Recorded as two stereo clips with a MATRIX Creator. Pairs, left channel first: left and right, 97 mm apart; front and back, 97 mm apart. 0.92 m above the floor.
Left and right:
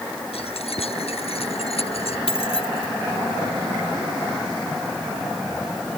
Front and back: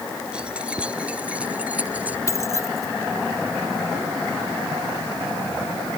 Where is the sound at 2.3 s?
60° left.